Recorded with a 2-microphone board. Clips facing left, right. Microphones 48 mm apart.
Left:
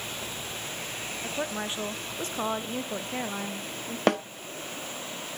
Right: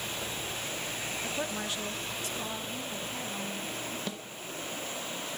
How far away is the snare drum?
About 0.6 m.